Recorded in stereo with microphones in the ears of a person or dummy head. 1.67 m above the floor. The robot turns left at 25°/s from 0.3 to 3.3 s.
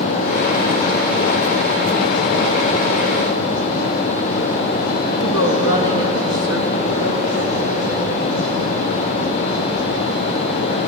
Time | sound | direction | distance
5.2 | a woman speaking | 85° left | 2.5 m